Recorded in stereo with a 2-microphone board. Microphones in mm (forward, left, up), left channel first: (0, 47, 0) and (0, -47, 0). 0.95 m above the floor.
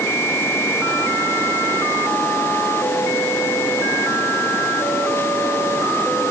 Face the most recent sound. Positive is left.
No sound to turn to.